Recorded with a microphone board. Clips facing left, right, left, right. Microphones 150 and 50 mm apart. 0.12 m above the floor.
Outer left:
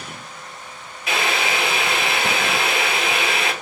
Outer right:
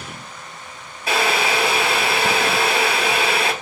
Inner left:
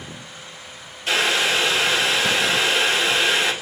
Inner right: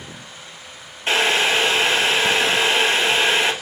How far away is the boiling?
About 1.2 m.